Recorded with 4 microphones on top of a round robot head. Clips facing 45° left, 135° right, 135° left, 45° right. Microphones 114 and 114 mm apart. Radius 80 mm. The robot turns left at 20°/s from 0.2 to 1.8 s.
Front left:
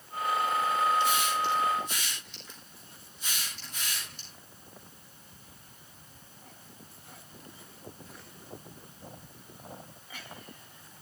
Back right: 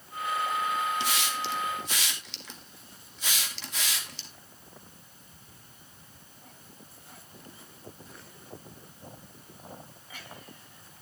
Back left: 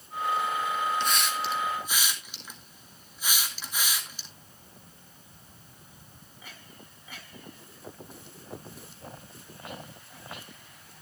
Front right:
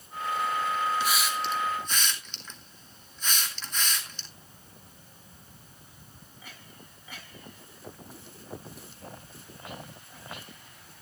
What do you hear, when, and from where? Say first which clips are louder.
1.0 s a hiss: front left 4 dB, even; 125° right, 2.5 m; by 4.3 s 140° right, 2.5 m